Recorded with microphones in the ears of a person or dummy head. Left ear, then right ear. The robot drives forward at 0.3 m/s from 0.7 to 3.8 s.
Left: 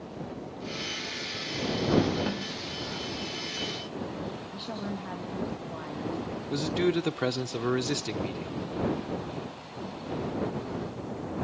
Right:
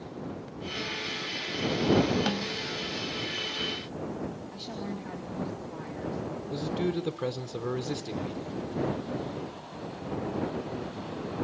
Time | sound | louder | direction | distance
2.3 | a snare drum | right 3 dB | 35° right (ahead or behind) | 0.6 m
4.5 | a woman speaking | left 2 dB | 15° left (ahead or behind) | 2.5 m
6.5 | a man speaking | left 4 dB | 40° left (ahead or behind) | 0.7 m